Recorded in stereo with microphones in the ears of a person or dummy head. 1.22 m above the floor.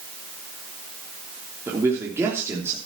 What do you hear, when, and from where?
1.7 s a man speaking: 10° right (ahead or behind), 3.5 m